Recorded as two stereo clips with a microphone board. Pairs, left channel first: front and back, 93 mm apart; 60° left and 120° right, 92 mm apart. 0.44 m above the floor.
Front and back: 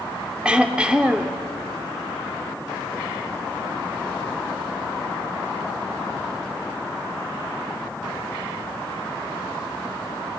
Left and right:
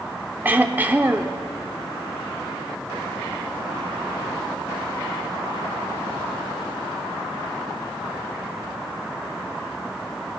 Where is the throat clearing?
125° right, 0.8 m.